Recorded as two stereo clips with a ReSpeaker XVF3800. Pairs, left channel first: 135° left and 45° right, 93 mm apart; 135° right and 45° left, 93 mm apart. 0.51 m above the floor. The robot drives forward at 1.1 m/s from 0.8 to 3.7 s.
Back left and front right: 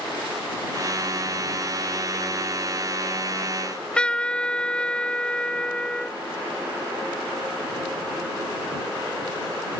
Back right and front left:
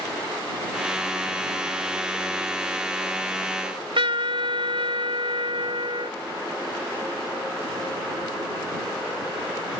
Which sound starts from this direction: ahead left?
A trumpet, at 3.6 s.